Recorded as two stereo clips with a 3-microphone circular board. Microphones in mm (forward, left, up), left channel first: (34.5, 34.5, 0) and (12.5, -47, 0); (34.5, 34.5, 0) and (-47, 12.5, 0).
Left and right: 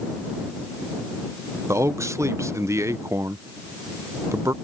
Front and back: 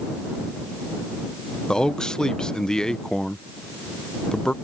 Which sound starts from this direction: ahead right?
A man speaking, at 1.7 s.